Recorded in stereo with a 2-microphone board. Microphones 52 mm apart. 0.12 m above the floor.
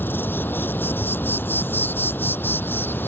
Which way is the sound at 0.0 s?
40° left (ahead or behind).